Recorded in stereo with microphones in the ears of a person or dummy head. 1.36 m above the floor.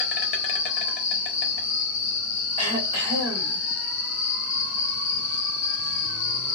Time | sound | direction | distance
0.0 | an insect | 35° left (ahead or behind) | 0.7 m
2.6 | throat clearing | 85° right | 1.5 m